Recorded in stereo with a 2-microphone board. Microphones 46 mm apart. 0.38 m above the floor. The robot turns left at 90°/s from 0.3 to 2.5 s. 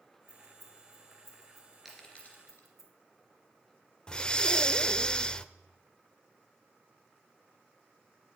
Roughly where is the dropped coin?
Centre.